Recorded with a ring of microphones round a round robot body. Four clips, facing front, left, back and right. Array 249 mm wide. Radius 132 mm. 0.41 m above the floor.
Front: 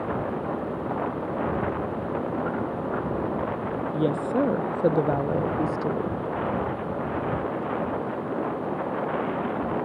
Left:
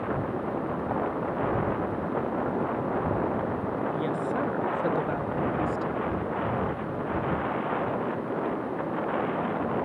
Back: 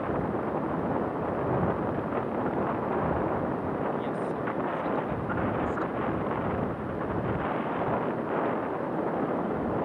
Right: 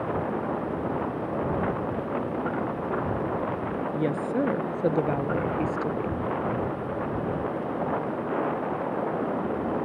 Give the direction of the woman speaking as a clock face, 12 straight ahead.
1 o'clock.